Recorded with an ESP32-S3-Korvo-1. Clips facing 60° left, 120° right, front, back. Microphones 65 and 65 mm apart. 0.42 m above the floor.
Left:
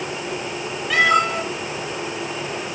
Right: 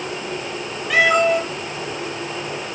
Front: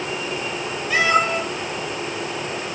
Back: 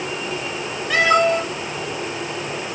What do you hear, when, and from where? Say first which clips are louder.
0.9 s a cat meowing: right 2 dB, back 3 dB; 150° left, 3 m